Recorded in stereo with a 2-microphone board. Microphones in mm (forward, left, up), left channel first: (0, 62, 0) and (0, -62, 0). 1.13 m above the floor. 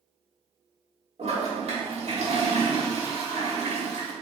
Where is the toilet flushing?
65° right (ahead or behind), 1.2 m.